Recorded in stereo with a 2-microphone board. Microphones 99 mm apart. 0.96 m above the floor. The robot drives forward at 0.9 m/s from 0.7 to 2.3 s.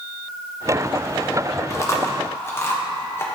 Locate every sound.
1.7 s chewing: 30° left (ahead or behind), 0.9 m; by 3.3 s 25° left (ahead or behind), 1.1 m